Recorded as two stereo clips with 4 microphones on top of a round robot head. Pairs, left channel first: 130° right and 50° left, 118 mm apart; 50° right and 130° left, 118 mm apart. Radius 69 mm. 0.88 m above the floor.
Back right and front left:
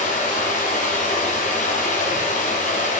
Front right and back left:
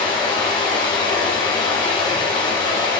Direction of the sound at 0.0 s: 105° right.